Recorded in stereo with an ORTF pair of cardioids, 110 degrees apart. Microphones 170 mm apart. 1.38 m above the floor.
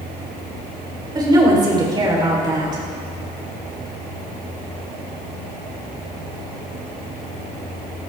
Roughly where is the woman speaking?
Ahead right.